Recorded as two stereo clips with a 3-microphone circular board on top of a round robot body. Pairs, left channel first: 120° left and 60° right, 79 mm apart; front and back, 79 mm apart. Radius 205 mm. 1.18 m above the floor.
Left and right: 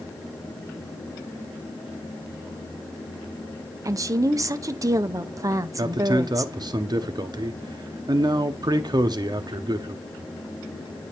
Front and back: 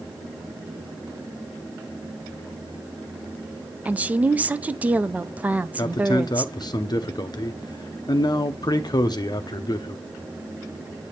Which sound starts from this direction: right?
A woman speaking, at 3.9 s.